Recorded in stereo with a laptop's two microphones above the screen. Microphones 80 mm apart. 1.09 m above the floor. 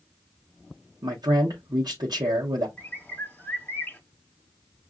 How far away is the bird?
About 1.1 m.